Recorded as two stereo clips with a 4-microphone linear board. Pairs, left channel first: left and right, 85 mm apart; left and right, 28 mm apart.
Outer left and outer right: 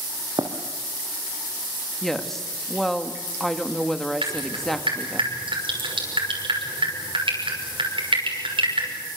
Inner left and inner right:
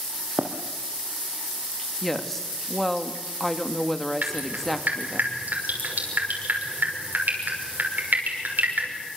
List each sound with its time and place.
0.4 s running footsteps: 55° right (ahead or behind), 2.5 m
2.0 s a woman speaking: 5° left (ahead or behind), 1.7 m
4.2 s dripping: 85° right, 6 m